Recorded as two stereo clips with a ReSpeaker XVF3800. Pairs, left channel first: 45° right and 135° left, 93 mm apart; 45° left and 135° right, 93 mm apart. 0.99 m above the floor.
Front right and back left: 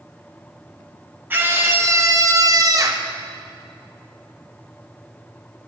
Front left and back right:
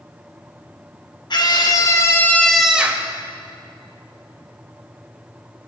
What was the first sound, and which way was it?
A scream, 70° left.